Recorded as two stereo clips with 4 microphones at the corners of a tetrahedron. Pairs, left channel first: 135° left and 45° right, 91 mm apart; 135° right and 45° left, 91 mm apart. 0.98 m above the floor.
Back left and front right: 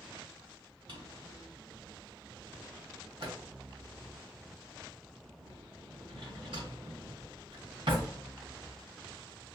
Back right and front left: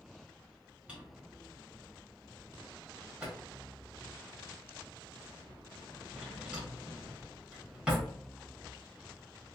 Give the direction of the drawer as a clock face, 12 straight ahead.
1 o'clock.